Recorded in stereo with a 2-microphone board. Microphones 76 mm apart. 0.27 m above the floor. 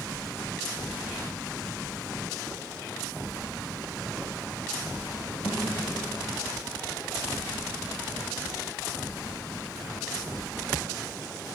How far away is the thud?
About 4.5 m.